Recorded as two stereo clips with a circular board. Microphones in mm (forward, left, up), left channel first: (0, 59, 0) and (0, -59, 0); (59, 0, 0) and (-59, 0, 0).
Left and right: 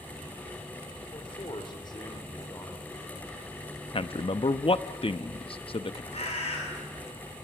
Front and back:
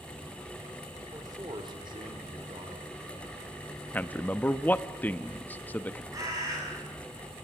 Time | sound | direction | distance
1.1 | a man speaking | 125° left | 3 m
3.9 | a man speaking | 75° left | 0.7 m
6.1 | a bird | 120° left | 8 m